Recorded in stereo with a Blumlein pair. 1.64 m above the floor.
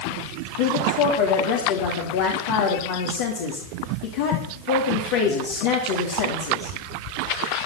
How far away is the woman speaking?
About 3 m.